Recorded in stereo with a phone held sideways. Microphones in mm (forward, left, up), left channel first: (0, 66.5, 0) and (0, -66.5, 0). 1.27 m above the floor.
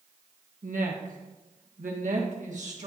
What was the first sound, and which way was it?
A woman speaking, 75° right (ahead or behind).